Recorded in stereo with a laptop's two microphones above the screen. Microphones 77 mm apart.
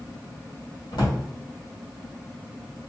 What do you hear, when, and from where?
0.9 s a drawer: 80° left, 1.6 m